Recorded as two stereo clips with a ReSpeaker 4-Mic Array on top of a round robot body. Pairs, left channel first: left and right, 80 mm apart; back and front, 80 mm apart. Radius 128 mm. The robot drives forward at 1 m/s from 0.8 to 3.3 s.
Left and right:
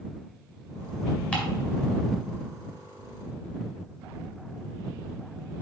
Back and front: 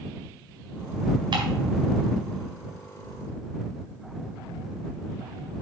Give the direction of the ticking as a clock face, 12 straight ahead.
11 o'clock.